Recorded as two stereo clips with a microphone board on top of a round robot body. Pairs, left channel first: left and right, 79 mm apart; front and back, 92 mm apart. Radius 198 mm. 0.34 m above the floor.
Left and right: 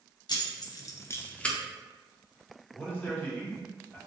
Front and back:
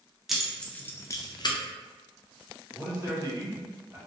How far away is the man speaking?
About 1.4 m.